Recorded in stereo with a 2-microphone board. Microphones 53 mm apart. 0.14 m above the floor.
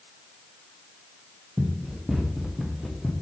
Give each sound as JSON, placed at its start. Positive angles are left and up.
{"t": 1.6, "sound": "running footsteps", "side_deg": -10, "distance_m": 4.0}